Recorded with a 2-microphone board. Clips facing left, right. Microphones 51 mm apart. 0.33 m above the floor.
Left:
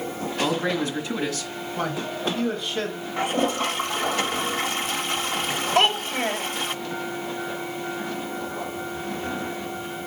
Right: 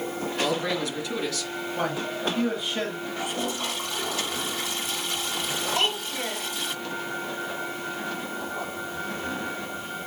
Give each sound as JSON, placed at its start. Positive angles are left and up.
{"t": 0.4, "sound": "a man speaking", "side_deg": 35, "distance_m": 3.0}
{"t": 1.8, "sound": "a man speaking", "side_deg": -5, "distance_m": 2.5}
{"t": 3.2, "sound": "a toilet flushing", "side_deg": 45, "distance_m": 1.2}
{"t": 5.8, "sound": "a child speaking", "side_deg": 55, "distance_m": 1.5}